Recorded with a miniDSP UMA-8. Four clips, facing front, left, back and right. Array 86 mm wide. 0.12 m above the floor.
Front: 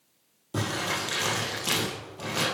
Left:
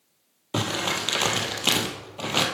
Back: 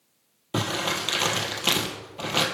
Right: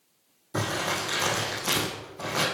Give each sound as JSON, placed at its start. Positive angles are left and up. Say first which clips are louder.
{"t": 0.5, "sound": "crumpling", "louder": "left 1 dB, back 3 dB", "azimuth_deg": 125, "distance_m": 3.0}